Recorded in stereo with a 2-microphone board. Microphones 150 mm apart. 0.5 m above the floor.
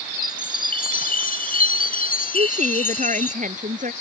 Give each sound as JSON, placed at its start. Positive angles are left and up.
{"t": 0.1, "sound": "a chime", "side_deg": 70}
{"t": 2.3, "sound": "a woman speaking", "side_deg": -60}